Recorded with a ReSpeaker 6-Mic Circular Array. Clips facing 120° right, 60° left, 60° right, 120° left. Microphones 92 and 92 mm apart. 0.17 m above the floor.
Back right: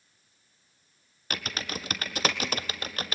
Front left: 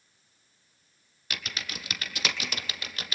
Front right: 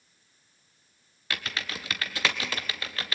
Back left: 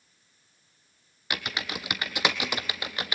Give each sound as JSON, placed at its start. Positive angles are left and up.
{"t": 1.3, "sound": "typing on a keyboard", "azimuth_deg": -170, "distance_m": 1.0}